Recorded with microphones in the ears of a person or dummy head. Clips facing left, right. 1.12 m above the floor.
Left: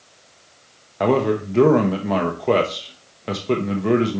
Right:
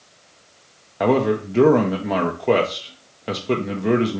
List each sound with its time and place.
1.0 s a man speaking: centre (ahead or behind), 0.6 m